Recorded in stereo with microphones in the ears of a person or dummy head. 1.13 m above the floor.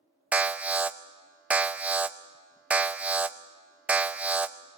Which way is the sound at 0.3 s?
10° right (ahead or behind).